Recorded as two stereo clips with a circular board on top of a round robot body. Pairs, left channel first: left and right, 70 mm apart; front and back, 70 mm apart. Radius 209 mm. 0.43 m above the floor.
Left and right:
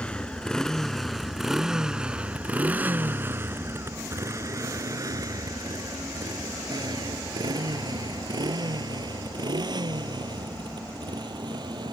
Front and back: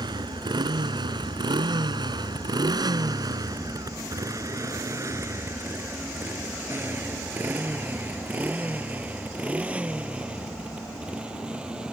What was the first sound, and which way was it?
A motorcycle, 165° left.